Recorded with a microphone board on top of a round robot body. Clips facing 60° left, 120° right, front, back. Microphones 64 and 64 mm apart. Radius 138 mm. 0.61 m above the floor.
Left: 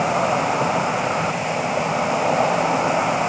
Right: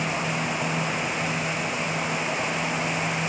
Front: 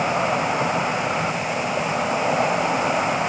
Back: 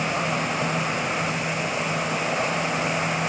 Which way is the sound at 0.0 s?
70° left.